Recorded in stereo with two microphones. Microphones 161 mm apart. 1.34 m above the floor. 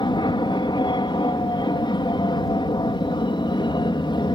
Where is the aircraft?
25° left (ahead or behind).